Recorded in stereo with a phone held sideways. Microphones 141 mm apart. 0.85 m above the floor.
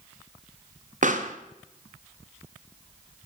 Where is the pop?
65° right (ahead or behind), 0.7 m.